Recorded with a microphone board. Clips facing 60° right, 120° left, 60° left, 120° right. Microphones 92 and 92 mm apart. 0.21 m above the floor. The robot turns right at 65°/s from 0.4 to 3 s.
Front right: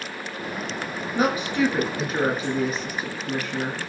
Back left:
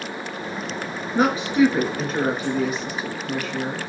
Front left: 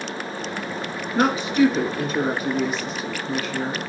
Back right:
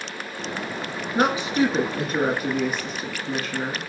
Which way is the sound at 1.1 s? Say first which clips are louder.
Back left 4 dB, front left 2 dB; 160° left.